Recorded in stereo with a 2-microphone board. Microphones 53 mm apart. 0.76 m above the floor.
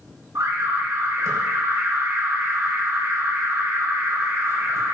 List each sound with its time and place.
0.3 s an alarm: 75° right (ahead or behind), 3.5 m